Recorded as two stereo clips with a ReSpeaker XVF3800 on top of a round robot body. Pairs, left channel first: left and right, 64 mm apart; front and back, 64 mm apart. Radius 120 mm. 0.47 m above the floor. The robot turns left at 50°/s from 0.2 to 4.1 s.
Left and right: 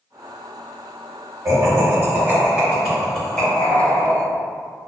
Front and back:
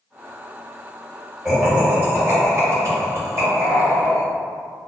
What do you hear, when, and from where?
1.4 s laughter: 100° right, 1.9 m; by 4.2 s 125° left, 1.9 m